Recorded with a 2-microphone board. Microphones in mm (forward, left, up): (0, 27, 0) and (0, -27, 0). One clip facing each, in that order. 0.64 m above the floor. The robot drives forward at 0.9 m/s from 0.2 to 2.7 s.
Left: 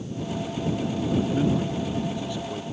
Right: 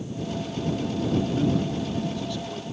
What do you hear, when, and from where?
1.3 s a man speaking: 25° left (ahead or behind); by 2.6 s 15° left (ahead or behind)